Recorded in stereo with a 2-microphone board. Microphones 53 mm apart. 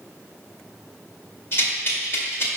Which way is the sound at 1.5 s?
50° left (ahead or behind).